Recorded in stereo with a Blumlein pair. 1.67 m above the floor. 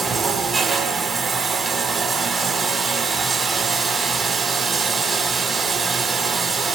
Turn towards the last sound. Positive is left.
turn(degrees=-20)